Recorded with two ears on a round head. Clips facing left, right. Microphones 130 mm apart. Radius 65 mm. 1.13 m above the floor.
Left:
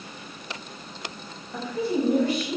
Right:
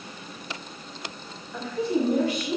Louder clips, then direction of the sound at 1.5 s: Even; 20° left (ahead or behind).